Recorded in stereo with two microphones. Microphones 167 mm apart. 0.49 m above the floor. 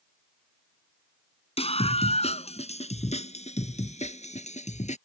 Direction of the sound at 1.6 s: 35° left (ahead or behind).